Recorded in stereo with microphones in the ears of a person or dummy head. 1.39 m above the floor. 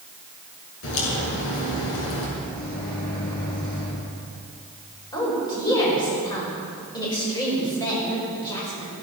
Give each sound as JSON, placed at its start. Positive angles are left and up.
{"t": 0.8, "sound": "a crack", "side_deg": 80, "distance_m": 6.5}
{"t": 2.4, "sound": "a microwave", "side_deg": 20, "distance_m": 6.0}
{"t": 5.1, "sound": "a woman speaking", "side_deg": 20, "distance_m": 6.5}